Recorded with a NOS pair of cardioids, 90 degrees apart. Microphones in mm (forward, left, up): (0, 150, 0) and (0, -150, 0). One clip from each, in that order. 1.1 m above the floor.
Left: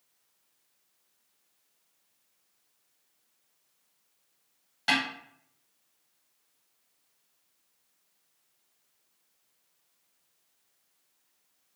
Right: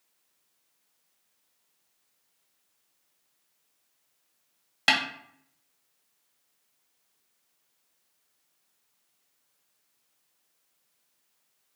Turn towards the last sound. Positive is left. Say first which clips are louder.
# right 3 dB
turn(degrees=-55)